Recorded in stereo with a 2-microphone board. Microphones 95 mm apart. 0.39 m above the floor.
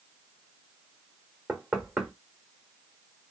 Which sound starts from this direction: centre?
Knocking, at 1.5 s.